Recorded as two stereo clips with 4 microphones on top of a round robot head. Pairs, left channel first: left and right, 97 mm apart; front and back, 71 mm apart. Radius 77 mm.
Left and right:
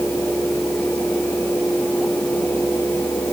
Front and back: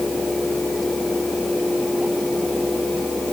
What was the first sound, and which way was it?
Only background noise.